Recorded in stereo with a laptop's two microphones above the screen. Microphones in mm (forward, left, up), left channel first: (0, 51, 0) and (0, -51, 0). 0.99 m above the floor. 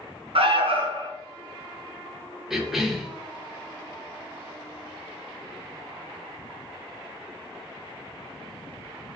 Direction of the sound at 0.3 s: 65° right (ahead or behind).